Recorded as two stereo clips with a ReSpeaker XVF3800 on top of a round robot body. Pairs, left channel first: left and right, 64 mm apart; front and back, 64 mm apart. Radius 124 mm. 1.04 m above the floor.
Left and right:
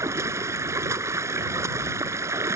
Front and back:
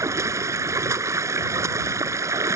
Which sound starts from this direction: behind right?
Running water, at 0.0 s.